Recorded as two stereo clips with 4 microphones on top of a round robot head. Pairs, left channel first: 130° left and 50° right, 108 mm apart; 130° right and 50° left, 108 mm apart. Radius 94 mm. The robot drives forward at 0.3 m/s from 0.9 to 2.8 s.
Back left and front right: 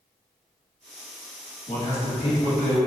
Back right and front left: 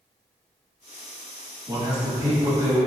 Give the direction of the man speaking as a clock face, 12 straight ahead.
8 o'clock.